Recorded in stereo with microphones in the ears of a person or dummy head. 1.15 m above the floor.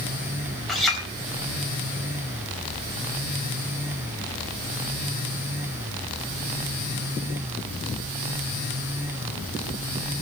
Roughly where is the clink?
Centre.